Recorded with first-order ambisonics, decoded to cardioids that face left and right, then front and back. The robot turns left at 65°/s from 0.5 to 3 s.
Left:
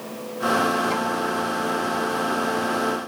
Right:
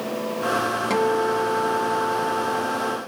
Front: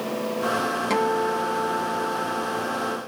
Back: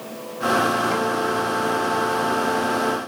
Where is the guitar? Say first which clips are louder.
Right 3 dB, back 1 dB; 35° right, 0.6 m; by 3.0 s 170° right, 0.6 m.